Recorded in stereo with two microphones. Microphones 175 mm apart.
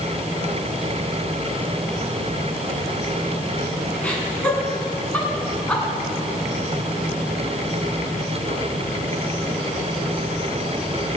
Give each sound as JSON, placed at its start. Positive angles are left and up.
{"t": 4.0, "sound": "laughter", "side_deg": 10, "distance_m": 5.0}